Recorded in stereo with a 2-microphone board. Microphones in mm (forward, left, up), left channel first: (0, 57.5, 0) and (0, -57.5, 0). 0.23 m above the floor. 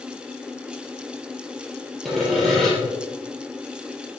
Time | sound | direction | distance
2.0 | sawing | centre (ahead or behind) | 4.5 m